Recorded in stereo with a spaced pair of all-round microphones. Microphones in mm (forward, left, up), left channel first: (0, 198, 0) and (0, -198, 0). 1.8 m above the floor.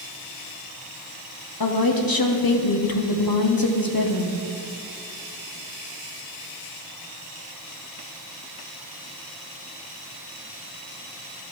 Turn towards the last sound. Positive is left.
turn(degrees=60)  # may be behind; listen again after turning